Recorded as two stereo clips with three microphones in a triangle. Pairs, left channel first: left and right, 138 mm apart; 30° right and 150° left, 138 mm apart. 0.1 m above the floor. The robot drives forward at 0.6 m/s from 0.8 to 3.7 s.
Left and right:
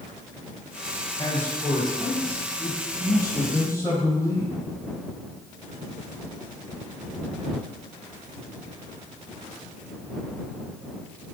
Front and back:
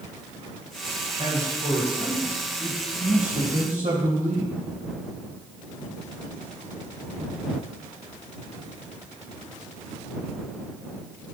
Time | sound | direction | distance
1.2 | a man speaking | 135° left | 2 m